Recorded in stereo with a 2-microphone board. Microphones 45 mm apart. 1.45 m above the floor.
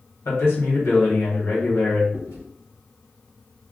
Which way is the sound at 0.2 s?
65° left (ahead or behind).